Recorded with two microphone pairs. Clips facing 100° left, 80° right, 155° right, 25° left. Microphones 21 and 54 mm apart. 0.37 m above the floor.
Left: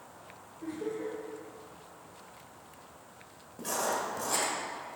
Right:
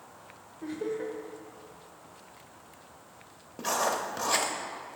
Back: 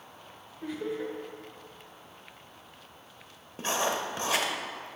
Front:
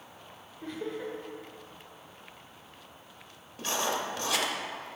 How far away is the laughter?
About 1.0 m.